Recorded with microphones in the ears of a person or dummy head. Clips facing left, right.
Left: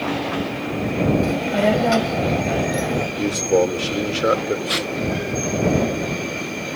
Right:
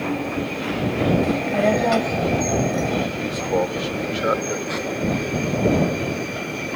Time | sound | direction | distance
1.2 | a child speaking | 5° left (ahead or behind) | ?
3.2 | a man speaking | 35° left (ahead or behind) | ?
4.7 | tape being pulled | 40° left (ahead or behind) | ?